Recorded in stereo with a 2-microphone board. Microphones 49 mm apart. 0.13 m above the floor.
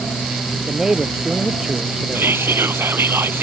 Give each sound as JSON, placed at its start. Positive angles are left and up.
{"t": 0.7, "sound": "a man speaking", "side_deg": -10}
{"t": 2.1, "sound": "whispering", "side_deg": -50}